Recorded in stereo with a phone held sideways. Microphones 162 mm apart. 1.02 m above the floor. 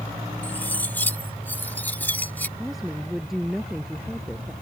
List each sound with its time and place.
0.4 s cutlery clinking: 10° left (ahead or behind)
2.6 s a woman speaking: centre (ahead or behind)